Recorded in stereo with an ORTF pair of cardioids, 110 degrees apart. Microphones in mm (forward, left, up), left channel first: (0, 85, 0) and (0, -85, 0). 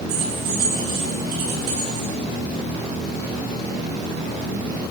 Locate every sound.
0.1 s keys jangling: 65° right, 9.5 m